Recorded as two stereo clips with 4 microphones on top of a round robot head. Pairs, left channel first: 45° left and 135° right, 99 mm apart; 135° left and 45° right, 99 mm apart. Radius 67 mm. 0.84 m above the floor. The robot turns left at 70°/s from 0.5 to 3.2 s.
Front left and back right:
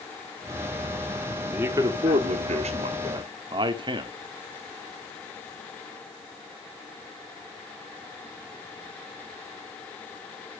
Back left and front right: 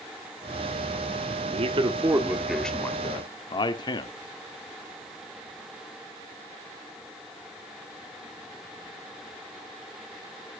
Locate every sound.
1.5 s a man speaking: 60° right, 1.8 m; by 4.1 s straight behind, 1.8 m